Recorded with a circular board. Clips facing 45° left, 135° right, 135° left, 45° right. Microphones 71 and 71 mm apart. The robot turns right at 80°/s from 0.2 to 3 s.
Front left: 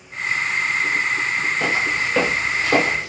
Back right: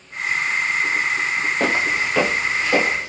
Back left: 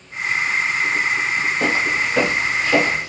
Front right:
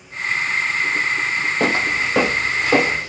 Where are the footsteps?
85° right, 0.9 m; by 3.1 s 20° left, 2 m.